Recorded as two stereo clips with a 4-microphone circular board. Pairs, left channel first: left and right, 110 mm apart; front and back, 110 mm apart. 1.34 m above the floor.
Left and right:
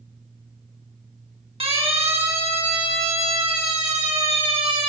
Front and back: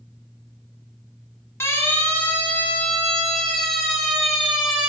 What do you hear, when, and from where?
1.6 s a siren: 65° right, 4.5 m; by 4.9 s 100° right, 6 m